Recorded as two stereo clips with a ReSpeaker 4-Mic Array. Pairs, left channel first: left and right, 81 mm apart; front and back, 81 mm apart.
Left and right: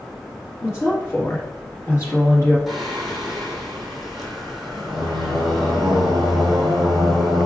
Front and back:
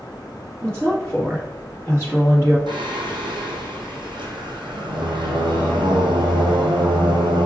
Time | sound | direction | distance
0.6 | a woman speaking | 135° left | 1.8 m
2.7 | singing | straight behind | 1.1 m